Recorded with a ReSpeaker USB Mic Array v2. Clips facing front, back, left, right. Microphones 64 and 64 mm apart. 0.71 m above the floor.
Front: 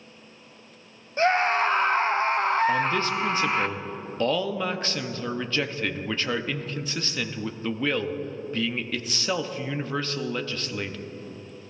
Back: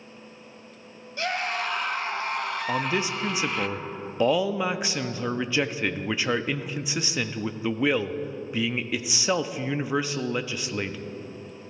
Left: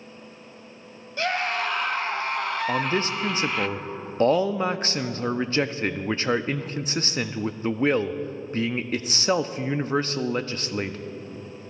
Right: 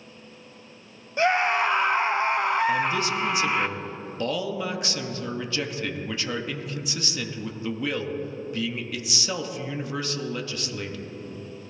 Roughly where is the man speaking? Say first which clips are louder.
Front 3 dB, right 1 dB; left.